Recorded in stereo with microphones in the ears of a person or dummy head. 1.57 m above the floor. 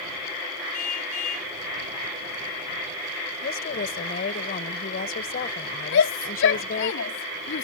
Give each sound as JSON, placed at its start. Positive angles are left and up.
{"t": 0.7, "sound": "a car horn", "side_deg": 40}
{"t": 3.4, "sound": "a woman speaking", "side_deg": 45}
{"t": 5.9, "sound": "a shout", "side_deg": 60}